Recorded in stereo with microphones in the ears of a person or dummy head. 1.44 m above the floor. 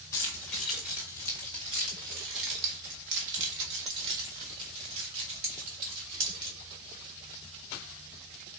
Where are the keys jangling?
10° left (ahead or behind), 1.0 m; by 6.6 s 60° right (ahead or behind), 3 m.